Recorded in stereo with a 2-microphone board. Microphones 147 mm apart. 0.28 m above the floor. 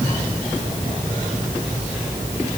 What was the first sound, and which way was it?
Only background noise.